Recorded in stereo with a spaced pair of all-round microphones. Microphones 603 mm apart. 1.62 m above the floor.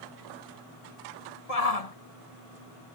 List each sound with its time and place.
1.5 s a shout: 80° left